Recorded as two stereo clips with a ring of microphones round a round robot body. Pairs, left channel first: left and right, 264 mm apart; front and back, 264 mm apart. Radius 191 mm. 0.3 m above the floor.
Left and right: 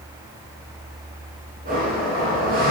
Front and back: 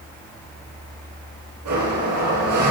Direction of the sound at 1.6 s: 155° right.